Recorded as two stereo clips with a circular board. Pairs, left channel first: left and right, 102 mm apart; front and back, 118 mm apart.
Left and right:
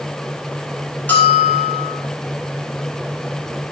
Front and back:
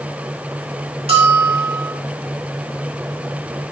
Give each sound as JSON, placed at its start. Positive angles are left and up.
{"t": 1.1, "sound": "a bell", "azimuth_deg": 160, "distance_m": 3.0}